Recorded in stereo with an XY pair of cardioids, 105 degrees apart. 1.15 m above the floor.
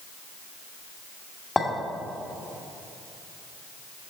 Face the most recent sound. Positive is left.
turn(degrees=20)